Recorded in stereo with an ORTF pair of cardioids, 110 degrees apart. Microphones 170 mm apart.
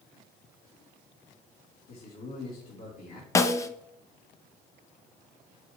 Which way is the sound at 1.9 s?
55° left.